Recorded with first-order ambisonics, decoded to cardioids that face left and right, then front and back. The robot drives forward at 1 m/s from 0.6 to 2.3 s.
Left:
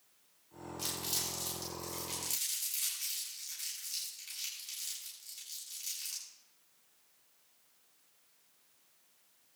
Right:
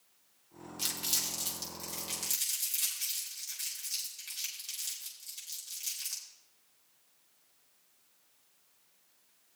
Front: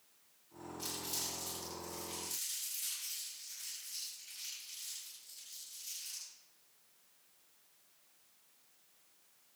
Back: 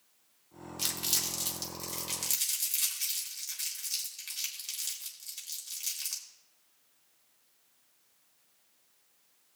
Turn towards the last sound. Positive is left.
turn(degrees=-170)